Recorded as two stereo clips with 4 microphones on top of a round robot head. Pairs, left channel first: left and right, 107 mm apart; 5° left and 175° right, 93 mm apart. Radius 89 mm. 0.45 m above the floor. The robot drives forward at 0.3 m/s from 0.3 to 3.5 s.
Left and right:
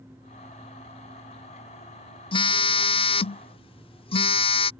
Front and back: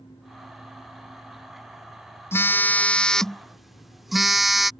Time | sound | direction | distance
2.3 | a phone buzzing | 65° left | ?